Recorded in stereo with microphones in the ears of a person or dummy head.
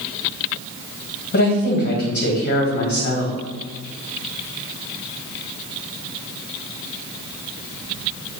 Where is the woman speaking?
45° left (ahead or behind), 1.1 m.